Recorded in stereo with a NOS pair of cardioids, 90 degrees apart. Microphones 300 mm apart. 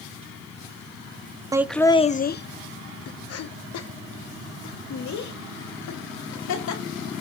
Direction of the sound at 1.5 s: 10° right.